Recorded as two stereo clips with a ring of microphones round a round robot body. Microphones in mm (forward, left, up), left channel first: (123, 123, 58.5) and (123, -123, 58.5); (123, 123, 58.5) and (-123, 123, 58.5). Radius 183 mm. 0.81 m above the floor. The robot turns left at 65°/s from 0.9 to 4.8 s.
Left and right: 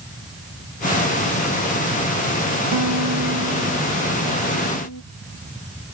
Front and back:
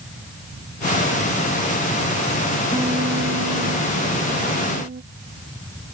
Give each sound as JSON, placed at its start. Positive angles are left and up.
{"t": 2.7, "sound": "a guitar", "azimuth_deg": -95}